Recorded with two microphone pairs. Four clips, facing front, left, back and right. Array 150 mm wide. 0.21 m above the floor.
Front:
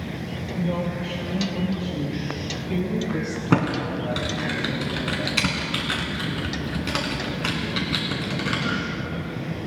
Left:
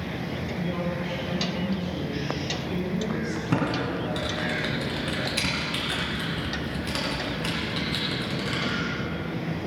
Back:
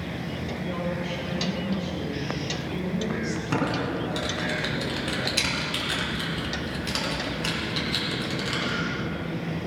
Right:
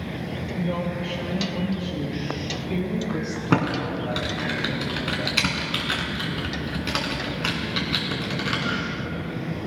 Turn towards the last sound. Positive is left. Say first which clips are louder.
# right 4 dB, front 5 dB
turn(degrees=-50)